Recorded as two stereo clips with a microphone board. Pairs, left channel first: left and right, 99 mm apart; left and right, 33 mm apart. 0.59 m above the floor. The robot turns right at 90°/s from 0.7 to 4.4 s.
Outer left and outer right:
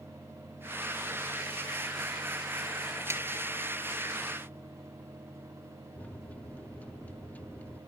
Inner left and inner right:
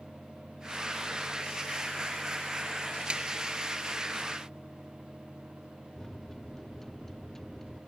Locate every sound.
3.1 s a snare drum: 30° right (ahead or behind); by 3.2 s 15° right (ahead or behind)
6.0 s a microwave: 15° left (ahead or behind)